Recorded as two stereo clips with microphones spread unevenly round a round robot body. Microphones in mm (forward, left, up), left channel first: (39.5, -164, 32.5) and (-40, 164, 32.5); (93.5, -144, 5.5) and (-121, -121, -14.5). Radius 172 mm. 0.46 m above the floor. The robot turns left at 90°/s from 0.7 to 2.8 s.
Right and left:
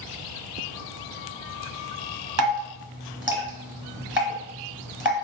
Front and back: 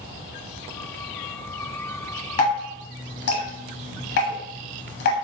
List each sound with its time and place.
2.4 s dripping: 55° left, 1.3 m; by 5.1 s 15° left, 1.3 m